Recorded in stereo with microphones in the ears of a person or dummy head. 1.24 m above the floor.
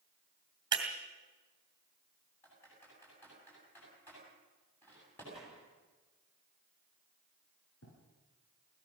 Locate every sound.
0.7 s breaking glass: 20° right (ahead or behind), 2.5 m
2.4 s typing on a keyboard: 10° left (ahead or behind), 8.5 m
5.3 s a gunshot: centre (ahead or behind), 10 m
7.8 s writing: 85° left, 8 m